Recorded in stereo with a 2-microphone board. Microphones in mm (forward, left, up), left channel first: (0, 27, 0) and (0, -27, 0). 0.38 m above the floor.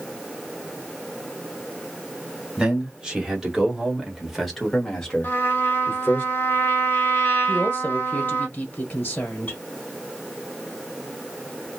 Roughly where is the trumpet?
Left.